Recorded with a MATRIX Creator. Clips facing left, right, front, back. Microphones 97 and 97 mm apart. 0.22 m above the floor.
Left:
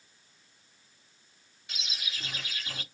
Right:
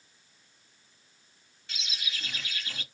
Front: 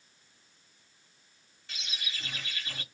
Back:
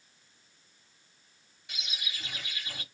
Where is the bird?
135° left, 1.1 m.